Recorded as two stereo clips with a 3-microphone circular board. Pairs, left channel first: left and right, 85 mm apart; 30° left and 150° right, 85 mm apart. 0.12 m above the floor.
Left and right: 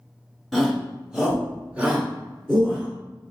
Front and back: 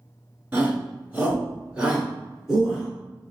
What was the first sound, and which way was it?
A shout, 175° left.